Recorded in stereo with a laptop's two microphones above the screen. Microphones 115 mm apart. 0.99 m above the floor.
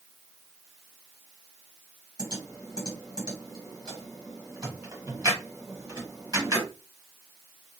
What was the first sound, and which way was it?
Typing on a keyboard, 30° right (ahead or behind).